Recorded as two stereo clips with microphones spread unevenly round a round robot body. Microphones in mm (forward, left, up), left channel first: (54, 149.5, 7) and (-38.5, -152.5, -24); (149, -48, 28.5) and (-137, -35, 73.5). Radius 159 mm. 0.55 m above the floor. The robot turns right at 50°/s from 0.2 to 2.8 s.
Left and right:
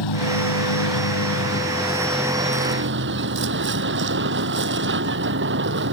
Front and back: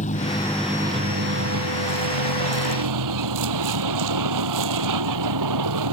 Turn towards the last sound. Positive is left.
turn(degrees=-165)